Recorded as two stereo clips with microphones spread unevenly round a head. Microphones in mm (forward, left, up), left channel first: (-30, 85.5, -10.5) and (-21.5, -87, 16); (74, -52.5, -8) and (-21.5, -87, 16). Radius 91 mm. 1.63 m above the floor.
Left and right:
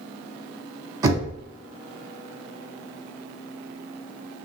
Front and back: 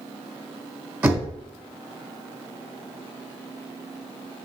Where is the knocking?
130° right, 0.9 m.